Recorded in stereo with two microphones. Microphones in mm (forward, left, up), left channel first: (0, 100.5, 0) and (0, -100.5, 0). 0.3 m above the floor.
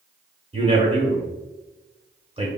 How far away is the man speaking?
About 0.9 m.